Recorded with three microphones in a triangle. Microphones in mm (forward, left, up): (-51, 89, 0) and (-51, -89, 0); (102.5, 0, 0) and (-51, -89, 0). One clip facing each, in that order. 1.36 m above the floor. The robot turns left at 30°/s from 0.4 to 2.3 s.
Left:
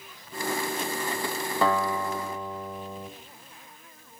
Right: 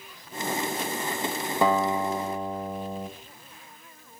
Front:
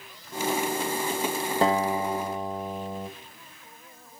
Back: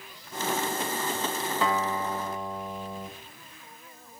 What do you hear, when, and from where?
1.6 s a guitar: 20° right, 2.0 m; by 3.1 s 40° right, 2.0 m